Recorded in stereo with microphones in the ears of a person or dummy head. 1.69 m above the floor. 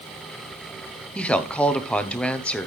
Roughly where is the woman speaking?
Centre.